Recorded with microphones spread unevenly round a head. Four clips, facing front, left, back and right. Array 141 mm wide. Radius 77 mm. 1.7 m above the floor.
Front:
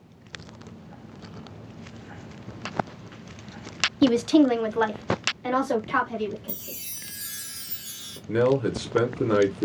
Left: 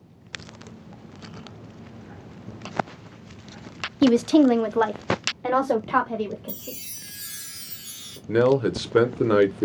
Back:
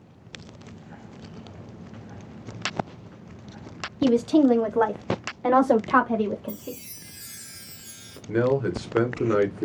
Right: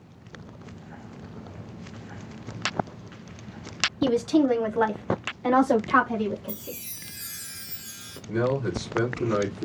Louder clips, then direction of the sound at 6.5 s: Right 1 dB, back 6 dB; 110° left.